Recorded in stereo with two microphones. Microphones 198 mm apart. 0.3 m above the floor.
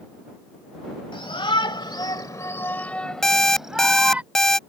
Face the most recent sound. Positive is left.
turn(degrees=0)  # may be behind; listen again after turning